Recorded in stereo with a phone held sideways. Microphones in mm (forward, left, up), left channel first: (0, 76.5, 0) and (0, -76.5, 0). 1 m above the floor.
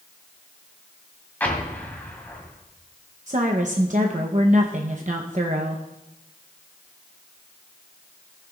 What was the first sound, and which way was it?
An explosion, 10° left (ahead or behind).